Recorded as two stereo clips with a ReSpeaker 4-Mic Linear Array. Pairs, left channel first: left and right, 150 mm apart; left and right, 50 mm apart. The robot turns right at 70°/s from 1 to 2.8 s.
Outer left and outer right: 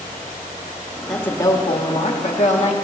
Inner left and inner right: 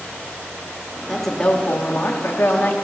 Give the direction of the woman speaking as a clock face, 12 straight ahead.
12 o'clock.